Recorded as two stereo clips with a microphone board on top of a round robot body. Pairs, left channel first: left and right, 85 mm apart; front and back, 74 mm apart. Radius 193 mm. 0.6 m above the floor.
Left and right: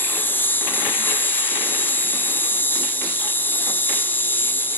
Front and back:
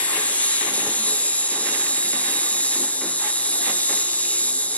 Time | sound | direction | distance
0.0 | an insect | 50° left | 1.5 m